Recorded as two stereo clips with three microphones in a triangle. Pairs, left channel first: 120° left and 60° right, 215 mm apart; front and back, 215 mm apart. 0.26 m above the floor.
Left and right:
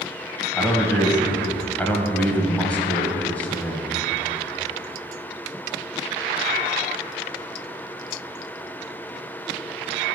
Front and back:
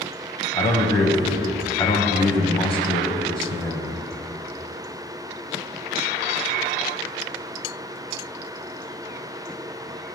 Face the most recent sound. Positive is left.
turn(degrees=40)